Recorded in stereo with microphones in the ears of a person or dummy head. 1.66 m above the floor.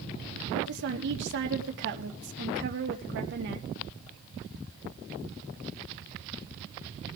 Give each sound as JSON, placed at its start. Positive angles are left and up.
{"t": 0.6, "sound": "a woman speaking", "side_deg": -65, "distance_m": 2.5}